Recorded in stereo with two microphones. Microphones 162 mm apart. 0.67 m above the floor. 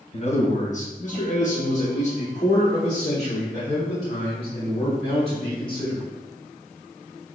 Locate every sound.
0.1 s a man speaking: 40° left (ahead or behind), 0.8 m; by 6.0 s 30° left (ahead or behind), 3 m